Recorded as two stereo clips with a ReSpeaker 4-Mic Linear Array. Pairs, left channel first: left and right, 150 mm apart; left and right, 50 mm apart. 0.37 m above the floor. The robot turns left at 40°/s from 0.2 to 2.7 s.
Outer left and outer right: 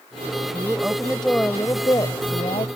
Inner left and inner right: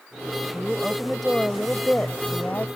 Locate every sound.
0.5 s a woman speaking: 155° right; by 2.7 s 115° left